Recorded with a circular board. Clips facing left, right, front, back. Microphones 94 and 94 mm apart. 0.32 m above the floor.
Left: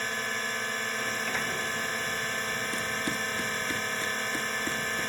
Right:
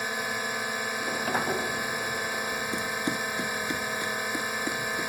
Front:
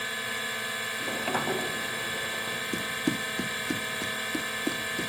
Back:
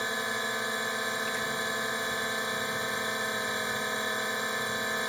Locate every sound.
0.0 s a drone: 150° right
1.0 s a sliding door: 35° right
2.7 s running footsteps: 20° right; by 5.1 s 10° right